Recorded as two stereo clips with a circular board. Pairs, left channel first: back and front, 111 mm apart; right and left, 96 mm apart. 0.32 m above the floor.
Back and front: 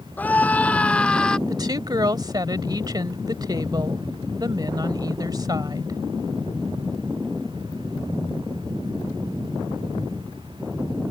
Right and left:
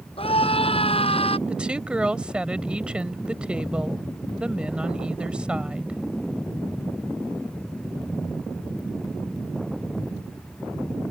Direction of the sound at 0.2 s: 105° right.